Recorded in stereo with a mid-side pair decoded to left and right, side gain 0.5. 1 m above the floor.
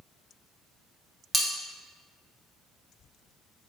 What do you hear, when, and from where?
1.3 s cutlery clinking: 10° right, 0.5 m